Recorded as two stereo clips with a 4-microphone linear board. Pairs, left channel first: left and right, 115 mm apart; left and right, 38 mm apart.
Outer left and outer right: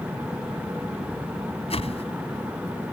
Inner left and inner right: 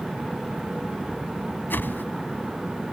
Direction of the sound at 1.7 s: 60° left (ahead or behind).